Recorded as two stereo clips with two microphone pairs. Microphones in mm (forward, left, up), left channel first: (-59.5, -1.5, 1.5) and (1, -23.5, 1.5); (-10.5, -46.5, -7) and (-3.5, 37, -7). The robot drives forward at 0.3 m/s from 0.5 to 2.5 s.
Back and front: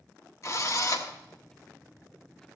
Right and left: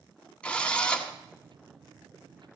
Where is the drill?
170° right, 1.1 m.